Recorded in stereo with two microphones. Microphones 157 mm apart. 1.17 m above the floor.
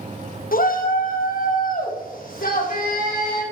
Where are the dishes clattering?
I don't hear dishes clattering.